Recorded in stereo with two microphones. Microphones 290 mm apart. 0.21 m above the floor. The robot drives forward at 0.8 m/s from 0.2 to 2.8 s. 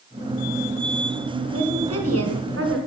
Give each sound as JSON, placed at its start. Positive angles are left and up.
{"t": 1.5, "sound": "a woman speaking", "side_deg": -55, "distance_m": 1.7}